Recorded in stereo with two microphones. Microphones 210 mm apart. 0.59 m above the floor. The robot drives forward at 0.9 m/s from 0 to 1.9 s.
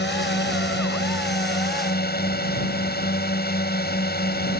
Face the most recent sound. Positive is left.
turn(degrees=50)  # may be behind; listen again after turning